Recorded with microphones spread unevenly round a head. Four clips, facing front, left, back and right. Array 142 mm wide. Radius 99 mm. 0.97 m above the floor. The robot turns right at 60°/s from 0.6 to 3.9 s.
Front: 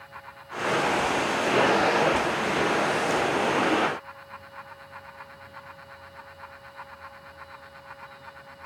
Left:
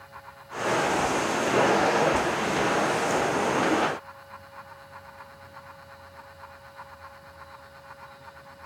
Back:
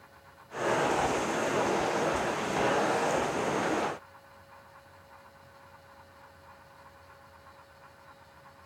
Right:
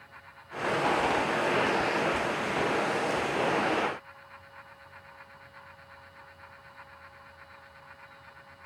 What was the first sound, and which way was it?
Only background noise.